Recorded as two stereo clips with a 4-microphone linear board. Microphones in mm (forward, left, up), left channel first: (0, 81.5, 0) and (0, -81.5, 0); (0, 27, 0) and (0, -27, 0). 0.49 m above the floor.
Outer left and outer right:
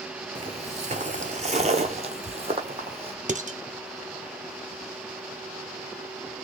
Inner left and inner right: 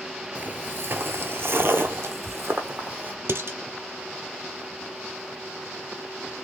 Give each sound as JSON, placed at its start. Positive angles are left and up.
{"t": 0.3, "sound": "footsteps", "side_deg": -35, "distance_m": 0.6}
{"t": 3.3, "sound": "dishes clattering", "side_deg": -55, "distance_m": 0.6}